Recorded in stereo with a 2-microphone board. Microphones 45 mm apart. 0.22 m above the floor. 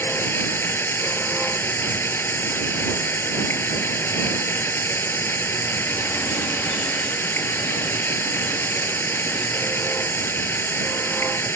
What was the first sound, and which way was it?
Running water, 55° left (ahead or behind).